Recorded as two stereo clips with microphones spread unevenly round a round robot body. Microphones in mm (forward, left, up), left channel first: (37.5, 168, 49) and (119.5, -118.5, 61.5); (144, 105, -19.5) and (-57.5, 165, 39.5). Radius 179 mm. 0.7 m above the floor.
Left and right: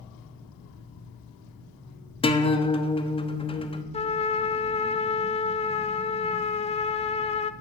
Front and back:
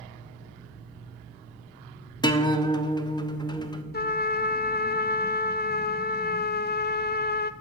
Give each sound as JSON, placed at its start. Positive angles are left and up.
{"t": 2.2, "sound": "a guitar", "azimuth_deg": 40, "distance_m": 1.2}
{"t": 3.9, "sound": "a trumpet", "azimuth_deg": 35, "distance_m": 0.8}